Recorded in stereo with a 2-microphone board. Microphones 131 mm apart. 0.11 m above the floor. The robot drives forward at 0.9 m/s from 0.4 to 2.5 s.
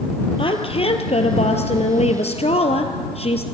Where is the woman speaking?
45° left (ahead or behind), 2.5 m; by 3.4 s 50° left (ahead or behind), 2 m.